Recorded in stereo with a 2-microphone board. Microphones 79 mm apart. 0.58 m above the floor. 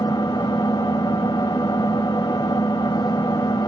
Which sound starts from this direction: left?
An engine running, at 0.0 s.